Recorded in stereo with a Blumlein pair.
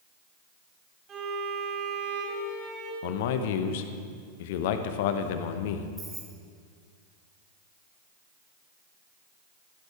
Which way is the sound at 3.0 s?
50° left.